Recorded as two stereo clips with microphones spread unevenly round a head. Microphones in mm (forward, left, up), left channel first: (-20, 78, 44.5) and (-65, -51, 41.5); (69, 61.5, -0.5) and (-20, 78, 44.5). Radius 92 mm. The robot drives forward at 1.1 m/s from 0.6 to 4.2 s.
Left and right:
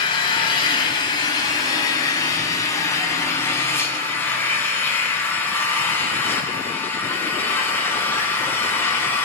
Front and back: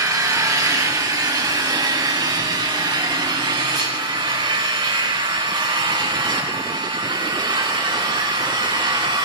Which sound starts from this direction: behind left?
An engine running, at 0.0 s.